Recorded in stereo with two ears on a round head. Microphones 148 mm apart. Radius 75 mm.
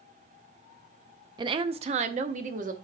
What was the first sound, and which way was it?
A woman speaking, 25° right (ahead or behind).